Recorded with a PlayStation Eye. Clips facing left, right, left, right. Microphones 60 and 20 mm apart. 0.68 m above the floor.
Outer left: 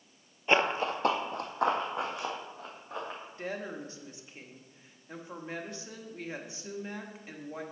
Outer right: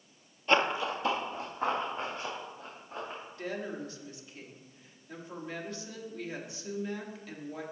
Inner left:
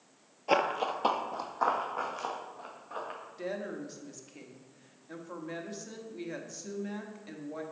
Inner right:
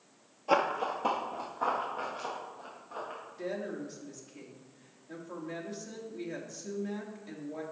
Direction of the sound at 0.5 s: 15° left (ahead or behind).